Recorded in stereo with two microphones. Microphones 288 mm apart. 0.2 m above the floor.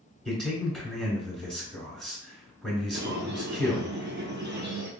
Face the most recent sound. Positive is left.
turn(degrees=-40)  # may be behind; listen again after turning